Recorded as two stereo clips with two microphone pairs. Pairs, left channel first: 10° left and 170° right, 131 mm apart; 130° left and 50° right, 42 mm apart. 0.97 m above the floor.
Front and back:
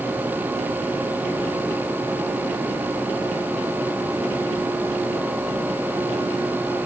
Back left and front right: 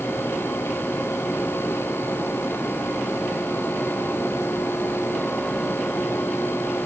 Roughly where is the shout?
No shout in this recording.